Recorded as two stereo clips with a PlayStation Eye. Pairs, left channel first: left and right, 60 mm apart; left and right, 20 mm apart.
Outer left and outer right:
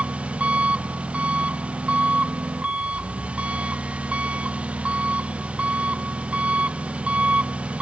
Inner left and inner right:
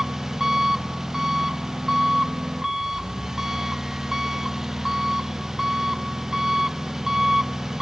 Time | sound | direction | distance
0.0 | an engine running | 20° right (ahead or behind) | ?